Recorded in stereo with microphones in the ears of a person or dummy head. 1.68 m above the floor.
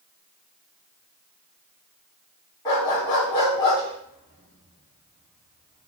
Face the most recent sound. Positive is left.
turn(degrees=20)  # may be behind; listen again after turning